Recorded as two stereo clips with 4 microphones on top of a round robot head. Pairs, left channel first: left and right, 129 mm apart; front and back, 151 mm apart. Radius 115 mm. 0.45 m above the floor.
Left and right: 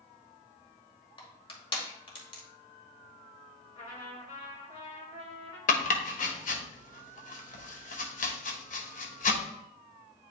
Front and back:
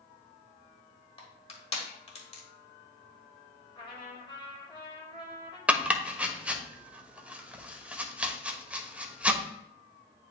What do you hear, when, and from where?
1.2 s crushing: 45° left, 2 m
3.8 s a trumpet: 55° left, 4.5 m
5.7 s chopping: 100° left, 1.2 m